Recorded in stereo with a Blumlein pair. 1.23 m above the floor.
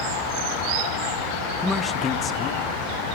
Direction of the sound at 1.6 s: 10° left.